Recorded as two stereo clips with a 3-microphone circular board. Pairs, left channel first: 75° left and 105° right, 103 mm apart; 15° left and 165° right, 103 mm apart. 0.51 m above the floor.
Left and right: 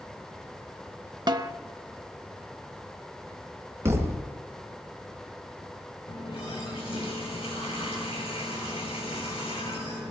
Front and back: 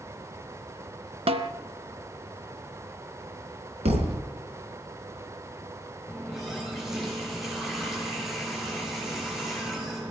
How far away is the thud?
About 2.0 m.